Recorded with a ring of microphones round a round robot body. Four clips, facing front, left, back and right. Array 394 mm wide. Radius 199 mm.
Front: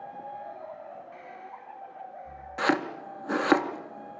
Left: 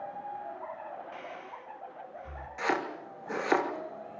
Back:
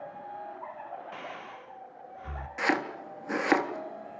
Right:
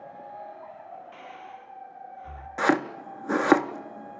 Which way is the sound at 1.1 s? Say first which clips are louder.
Even, back 2 dB; straight behind.